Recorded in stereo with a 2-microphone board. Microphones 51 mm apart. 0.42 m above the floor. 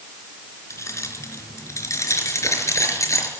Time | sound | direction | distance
0.7 | keys jangling | 70° left (ahead or behind) | 4 m